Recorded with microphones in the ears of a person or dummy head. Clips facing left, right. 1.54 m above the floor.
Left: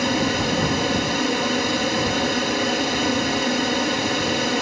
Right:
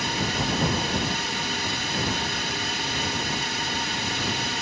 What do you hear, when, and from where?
0.0 s a fan: 60° left (ahead or behind)